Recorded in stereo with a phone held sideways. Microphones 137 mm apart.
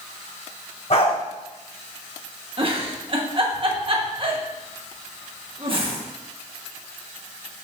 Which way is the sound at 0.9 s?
50° left (ahead or behind).